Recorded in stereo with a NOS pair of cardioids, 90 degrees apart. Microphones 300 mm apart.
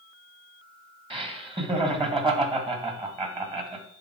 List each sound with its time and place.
1.1 s laughter: 20° right, 2 m